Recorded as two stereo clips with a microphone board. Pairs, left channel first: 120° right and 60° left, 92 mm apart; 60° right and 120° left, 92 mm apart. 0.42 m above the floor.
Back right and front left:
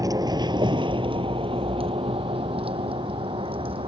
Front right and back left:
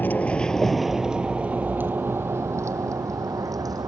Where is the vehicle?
10° left; by 3.9 s 70° left.